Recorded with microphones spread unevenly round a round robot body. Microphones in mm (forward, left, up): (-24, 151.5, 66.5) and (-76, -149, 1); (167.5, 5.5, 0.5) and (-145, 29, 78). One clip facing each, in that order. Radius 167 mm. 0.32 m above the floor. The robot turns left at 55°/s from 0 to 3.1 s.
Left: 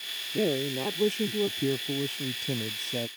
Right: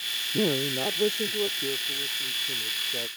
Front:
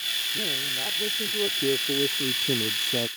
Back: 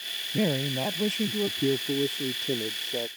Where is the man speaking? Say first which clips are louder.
Right 1 dB, back 10 dB; 170° right; by 3.1 s 35° left.